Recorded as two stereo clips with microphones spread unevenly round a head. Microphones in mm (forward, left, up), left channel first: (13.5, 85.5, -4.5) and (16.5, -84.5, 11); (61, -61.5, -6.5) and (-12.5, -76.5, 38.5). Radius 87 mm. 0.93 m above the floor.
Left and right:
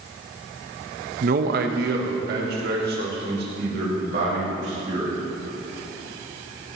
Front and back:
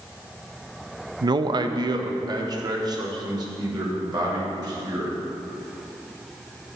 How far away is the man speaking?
About 0.5 m.